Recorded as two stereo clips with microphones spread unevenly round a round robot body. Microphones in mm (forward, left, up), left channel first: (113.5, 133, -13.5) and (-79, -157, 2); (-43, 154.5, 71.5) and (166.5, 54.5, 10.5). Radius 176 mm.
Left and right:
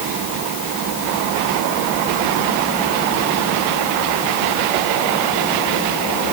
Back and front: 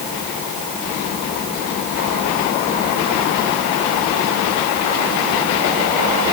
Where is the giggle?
I don't hear a giggle.